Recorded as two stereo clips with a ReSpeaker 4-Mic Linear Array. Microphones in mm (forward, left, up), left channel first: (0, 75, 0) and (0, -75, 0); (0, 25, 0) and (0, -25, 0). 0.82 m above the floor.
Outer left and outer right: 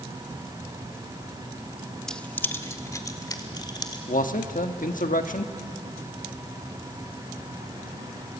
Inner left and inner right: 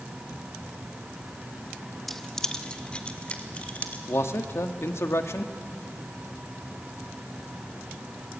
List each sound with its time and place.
2.1 s keys jangling: 5° left (ahead or behind), 0.8 m; by 4.0 s 30° left (ahead or behind), 2.5 m
4.1 s a man speaking: 60° left (ahead or behind), 1.3 m